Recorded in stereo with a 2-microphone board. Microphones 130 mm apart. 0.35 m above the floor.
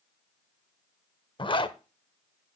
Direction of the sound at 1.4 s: 40° left (ahead or behind).